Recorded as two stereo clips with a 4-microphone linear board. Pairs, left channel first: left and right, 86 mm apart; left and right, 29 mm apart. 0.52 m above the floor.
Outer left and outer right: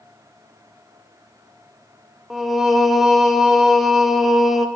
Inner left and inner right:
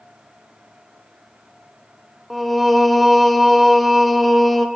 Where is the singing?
5° right (ahead or behind), 0.5 m.